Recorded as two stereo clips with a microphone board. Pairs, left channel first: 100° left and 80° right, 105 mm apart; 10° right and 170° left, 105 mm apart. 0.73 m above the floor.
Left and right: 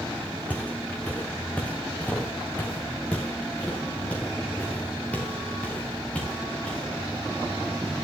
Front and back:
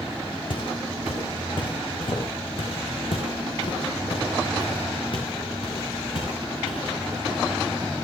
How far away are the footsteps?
About 3.5 m.